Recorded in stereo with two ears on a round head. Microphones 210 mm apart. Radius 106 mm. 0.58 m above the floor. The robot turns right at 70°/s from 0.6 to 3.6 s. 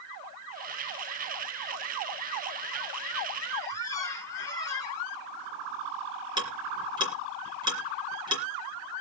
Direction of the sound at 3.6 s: 15° left (ahead or behind).